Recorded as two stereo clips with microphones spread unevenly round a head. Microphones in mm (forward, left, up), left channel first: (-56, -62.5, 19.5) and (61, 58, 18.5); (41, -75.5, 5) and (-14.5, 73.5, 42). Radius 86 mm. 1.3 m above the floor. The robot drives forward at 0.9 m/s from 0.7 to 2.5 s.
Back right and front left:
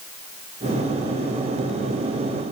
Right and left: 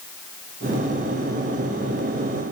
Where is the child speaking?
I don't hear a child speaking.